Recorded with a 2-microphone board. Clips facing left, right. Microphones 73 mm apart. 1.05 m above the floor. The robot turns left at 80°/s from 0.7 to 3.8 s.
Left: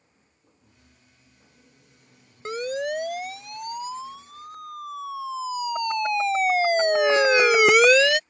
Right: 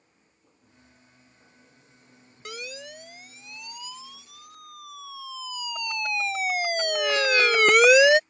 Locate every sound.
2.5 s a siren: 30° left (ahead or behind); by 8.2 s 30° right (ahead or behind)